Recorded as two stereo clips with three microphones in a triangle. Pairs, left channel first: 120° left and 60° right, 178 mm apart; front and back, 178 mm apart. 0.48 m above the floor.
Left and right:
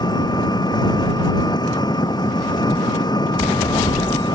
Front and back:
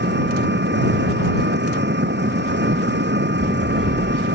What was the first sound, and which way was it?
An engine running, 175° right.